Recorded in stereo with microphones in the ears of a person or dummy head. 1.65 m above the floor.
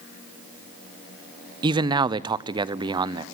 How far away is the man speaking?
About 0.7 m.